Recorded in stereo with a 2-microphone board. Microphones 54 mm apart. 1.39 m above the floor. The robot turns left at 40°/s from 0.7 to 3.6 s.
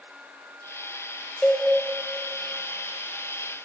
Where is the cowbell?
15° left (ahead or behind), 0.6 m; by 1.7 s 20° left (ahead or behind), 0.6 m.